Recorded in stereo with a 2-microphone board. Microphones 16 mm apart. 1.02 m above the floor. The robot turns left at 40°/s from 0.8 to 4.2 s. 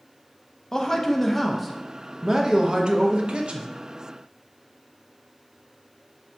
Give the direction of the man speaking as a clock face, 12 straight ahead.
11 o'clock.